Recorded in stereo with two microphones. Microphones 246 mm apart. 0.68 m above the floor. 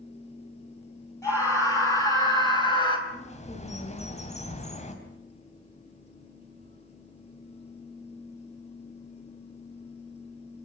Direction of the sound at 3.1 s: 25° left (ahead or behind).